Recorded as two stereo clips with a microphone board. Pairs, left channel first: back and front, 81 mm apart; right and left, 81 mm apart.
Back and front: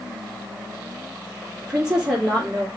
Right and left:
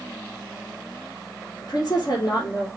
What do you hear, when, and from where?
1.6 s a woman speaking: 75° right, 2.5 m